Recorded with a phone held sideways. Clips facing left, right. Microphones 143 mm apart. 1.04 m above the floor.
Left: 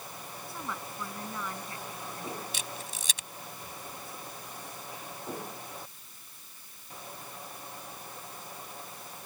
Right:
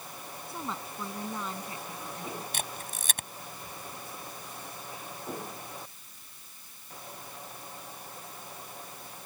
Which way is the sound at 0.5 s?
25° right (ahead or behind).